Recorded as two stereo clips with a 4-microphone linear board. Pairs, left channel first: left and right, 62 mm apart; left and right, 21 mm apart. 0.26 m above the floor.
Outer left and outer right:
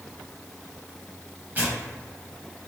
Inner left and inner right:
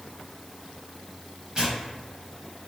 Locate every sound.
1.6 s tearing paper: 30° right (ahead or behind), 1.2 m